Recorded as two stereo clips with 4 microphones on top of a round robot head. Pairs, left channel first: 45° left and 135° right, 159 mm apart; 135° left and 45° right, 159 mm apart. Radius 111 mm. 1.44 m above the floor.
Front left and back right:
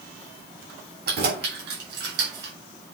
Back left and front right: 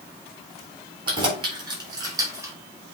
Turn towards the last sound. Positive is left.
turn(degrees=-120)